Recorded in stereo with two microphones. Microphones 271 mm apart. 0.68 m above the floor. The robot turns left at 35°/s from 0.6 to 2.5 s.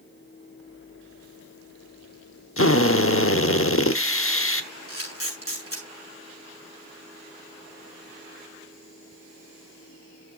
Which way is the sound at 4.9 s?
55° left (ahead or behind).